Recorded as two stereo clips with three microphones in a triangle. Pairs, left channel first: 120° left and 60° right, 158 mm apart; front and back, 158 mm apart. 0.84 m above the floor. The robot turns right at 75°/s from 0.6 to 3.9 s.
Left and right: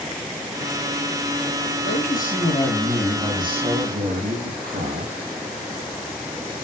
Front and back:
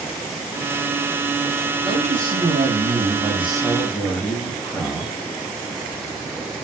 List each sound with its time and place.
1.8 s a man speaking: 120° left, 5 m; by 5.1 s 85° right, 5 m